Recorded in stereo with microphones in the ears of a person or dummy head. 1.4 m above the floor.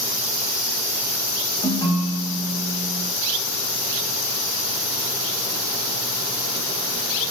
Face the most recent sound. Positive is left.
turn(degrees=30)  # may be behind; listen again after turning